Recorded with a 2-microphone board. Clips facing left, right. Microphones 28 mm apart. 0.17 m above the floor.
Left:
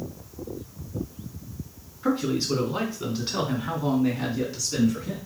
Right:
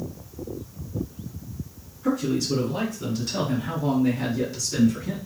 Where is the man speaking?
45° left (ahead or behind), 2 m; by 5.2 s 5° left (ahead or behind), 2.5 m.